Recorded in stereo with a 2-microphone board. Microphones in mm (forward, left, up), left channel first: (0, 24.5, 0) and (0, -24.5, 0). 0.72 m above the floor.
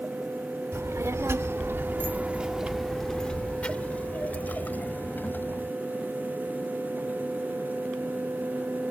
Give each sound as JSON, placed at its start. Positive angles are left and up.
{"t": 0.7, "sound": "a child speaking", "side_deg": -80}